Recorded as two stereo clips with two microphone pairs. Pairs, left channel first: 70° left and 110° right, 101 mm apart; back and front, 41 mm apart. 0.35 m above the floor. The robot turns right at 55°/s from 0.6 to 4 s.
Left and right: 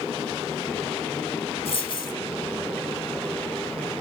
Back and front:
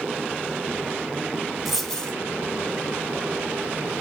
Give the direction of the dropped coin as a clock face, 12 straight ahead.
9 o'clock.